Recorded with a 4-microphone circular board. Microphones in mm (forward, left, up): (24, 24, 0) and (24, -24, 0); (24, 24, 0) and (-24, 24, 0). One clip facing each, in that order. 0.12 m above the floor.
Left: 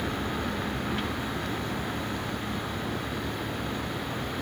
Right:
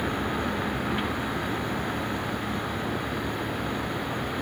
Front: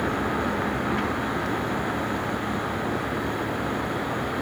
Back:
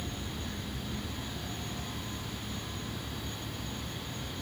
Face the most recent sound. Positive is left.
turn(degrees=-15)